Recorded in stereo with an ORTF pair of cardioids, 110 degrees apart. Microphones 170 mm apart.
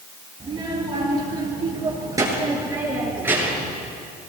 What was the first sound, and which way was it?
A child speaking, 30° right.